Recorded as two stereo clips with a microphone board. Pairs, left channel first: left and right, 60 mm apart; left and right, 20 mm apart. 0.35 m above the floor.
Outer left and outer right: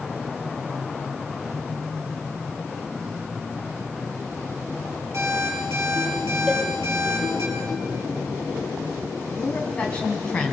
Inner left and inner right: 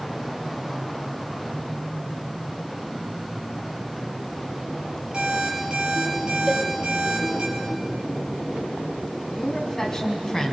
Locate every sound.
5.1 s an alarm clock: 55° right (ahead or behind), 6 m
6.5 s a cowbell: centre (ahead or behind), 1.3 m
9.3 s a woman speaking: 20° left (ahead or behind), 3 m